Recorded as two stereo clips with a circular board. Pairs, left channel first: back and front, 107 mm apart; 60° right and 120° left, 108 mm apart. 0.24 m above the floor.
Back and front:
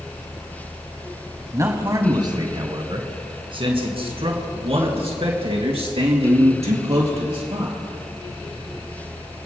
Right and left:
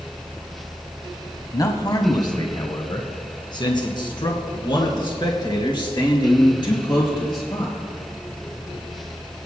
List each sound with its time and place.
1.5 s a man speaking: 40° right, 1.1 m; by 7.8 s 15° right, 4 m